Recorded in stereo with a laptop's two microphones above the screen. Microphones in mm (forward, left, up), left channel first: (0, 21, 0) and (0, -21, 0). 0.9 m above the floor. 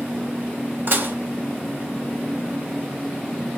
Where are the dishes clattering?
55° right (ahead or behind), 0.9 m.